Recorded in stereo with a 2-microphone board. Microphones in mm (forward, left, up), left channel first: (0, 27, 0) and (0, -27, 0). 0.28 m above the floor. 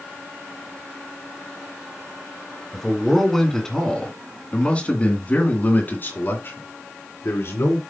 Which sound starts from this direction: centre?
A man speaking, at 2.7 s.